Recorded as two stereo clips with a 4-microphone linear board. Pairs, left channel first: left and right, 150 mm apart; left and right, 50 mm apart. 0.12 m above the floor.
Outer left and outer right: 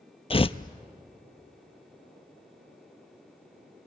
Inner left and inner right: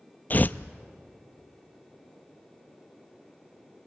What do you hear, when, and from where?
0.3 s tearing paper: 40° left (ahead or behind), 0.5 m